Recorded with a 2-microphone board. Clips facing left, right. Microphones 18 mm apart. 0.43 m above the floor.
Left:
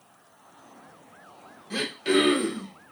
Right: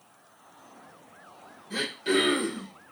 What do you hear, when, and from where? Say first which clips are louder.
1.7 s throat clearing: left 2 dB; 35° left (ahead or behind), 1.2 m